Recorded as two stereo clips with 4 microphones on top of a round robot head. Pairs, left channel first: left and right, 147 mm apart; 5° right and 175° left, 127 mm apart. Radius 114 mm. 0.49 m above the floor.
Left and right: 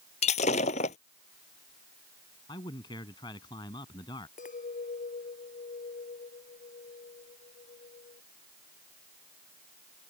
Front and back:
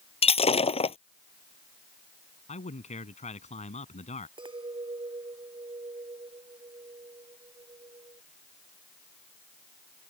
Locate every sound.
0.2 s breaking glass: 35° left
2.5 s a man speaking: 25° left
4.4 s a clink: 125° left